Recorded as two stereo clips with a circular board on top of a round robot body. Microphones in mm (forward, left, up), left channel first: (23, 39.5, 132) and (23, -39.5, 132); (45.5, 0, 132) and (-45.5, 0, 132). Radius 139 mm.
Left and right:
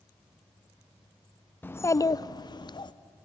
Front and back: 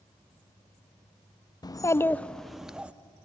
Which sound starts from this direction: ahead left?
A child speaking, at 1.6 s.